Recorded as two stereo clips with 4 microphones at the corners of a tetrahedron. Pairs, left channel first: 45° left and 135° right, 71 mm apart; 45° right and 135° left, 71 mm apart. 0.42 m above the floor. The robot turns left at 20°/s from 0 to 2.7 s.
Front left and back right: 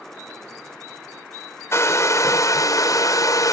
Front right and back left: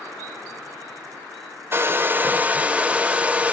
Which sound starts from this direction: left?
A hair dryer, at 1.7 s.